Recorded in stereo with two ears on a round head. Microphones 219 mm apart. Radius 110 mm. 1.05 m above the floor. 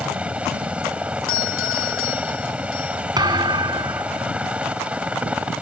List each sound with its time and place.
0.0 s a helicopter: 5° right (ahead or behind)
1.3 s a doorbell: 60° left (ahead or behind)
3.2 s a thud: 15° right (ahead or behind)